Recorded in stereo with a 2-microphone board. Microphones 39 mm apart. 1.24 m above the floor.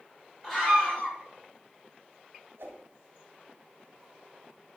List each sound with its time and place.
0.4 s a scream: centre (ahead or behind), 6.5 m
2.6 s a whoosh: 75° right (ahead or behind), 3 m